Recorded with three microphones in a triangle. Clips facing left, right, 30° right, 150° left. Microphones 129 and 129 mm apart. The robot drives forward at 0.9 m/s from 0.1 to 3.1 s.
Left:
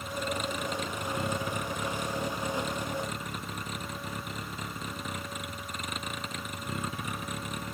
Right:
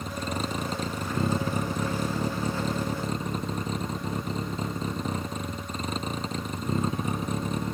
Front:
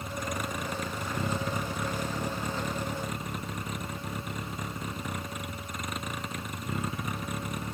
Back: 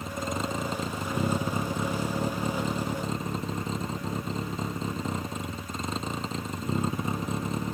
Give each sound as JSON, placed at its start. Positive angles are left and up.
{"t": 0.0, "sound": "a vehicle", "azimuth_deg": -145}